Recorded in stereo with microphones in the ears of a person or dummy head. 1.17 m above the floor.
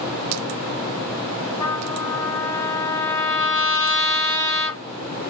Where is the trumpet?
25° left (ahead or behind), 1.4 m.